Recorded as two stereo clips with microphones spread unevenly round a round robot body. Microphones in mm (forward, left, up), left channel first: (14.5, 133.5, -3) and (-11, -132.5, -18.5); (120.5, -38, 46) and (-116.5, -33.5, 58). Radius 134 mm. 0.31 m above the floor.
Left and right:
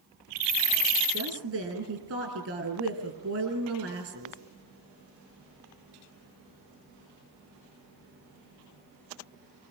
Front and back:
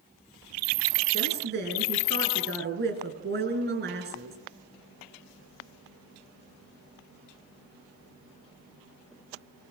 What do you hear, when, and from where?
1.1 s a woman speaking: 135° right, 6 m